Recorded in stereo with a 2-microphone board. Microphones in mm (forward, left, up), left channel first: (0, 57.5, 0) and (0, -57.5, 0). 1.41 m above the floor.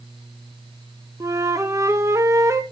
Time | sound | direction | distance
1.2 | a flute | 30° right (ahead or behind) | 0.5 m